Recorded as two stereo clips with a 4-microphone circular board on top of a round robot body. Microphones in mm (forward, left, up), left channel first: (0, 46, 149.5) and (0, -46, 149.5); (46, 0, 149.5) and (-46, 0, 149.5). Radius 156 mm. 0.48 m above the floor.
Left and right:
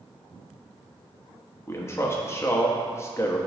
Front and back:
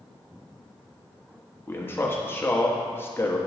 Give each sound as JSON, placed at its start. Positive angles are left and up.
{"t": 1.7, "sound": "a man speaking", "azimuth_deg": 50, "distance_m": 1.2}